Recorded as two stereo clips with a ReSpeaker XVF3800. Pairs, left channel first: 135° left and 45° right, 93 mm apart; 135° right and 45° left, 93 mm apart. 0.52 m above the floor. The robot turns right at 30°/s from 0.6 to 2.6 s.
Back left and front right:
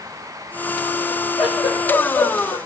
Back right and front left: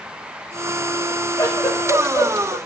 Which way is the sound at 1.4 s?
160° left.